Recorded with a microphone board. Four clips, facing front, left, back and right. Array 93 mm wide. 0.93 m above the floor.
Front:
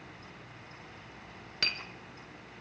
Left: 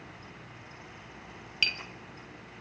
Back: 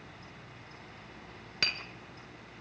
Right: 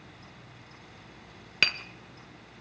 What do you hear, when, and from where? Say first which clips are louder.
1.6 s tapping: right 4 dB, back 1 dB; 90° right, 1.4 m